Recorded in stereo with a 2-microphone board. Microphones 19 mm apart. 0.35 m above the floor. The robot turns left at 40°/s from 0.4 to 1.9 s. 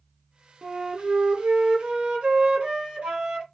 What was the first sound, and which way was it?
A flute, 35° right.